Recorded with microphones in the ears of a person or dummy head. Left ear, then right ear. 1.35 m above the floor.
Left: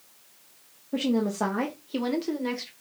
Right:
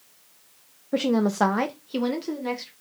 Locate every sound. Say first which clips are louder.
0.9 s a woman speaking: right 4 dB; 65° right (ahead or behind), 0.6 m; by 2.7 s 5° left (ahead or behind), 1.2 m